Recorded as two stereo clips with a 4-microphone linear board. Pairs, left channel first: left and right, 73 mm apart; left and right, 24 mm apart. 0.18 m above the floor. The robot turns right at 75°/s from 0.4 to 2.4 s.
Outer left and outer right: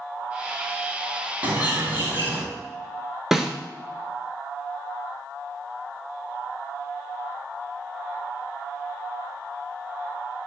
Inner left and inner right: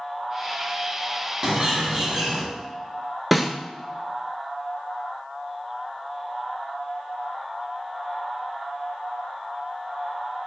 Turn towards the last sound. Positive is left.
turn(degrees=-5)  # may be behind; listen again after turning